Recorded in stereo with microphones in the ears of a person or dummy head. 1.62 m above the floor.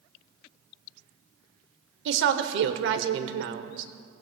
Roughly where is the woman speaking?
Right.